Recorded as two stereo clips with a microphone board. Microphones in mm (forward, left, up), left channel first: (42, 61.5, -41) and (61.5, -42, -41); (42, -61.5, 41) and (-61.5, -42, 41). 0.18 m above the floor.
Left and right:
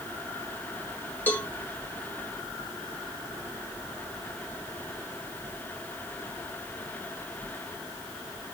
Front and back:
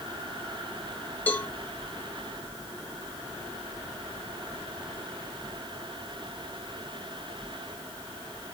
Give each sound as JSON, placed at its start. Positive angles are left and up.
{"t": 1.3, "sound": "a cowbell", "azimuth_deg": 45, "distance_m": 1.1}